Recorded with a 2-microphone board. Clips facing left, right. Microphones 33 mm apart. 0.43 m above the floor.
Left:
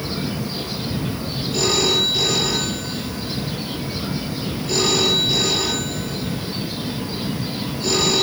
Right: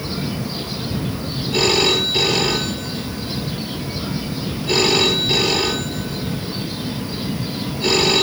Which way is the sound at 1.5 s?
45° right (ahead or behind).